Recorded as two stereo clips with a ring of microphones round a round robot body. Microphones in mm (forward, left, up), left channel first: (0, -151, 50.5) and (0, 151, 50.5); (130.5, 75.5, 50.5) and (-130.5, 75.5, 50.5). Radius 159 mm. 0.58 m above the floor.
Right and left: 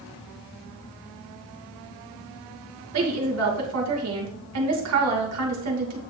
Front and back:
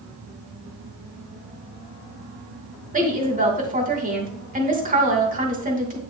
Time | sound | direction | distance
2.9 | a woman speaking | 125° left | 2.5 m